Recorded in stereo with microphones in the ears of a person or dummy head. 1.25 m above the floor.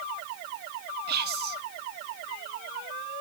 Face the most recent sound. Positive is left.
turn(degrees=-55)  # may be behind; listen again after turning